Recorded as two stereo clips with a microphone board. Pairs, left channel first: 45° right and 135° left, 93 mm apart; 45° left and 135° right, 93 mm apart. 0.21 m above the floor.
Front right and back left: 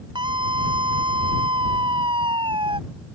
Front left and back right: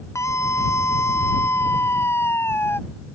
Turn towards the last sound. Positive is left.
turn(degrees=110)